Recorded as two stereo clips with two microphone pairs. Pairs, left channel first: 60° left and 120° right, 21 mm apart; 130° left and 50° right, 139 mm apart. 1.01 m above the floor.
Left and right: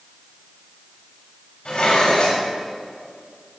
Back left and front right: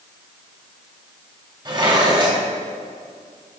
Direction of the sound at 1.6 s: 10° left.